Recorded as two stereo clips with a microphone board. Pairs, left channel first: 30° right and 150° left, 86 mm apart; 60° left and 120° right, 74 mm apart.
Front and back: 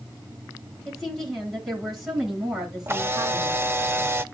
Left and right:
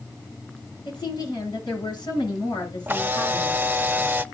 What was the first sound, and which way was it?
A woman speaking, 55° left.